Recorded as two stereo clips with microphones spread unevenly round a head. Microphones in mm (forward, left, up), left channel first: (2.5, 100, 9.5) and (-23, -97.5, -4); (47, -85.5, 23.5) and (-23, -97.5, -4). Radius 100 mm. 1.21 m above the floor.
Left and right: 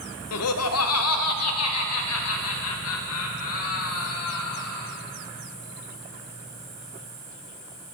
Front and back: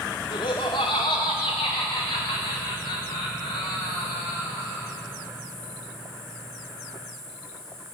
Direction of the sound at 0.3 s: 70° left.